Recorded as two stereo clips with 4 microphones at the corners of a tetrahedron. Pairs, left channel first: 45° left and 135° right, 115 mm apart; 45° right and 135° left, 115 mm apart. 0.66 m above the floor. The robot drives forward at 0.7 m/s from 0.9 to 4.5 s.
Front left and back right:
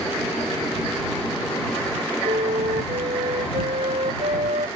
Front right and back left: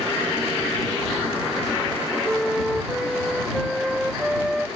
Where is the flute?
135° right.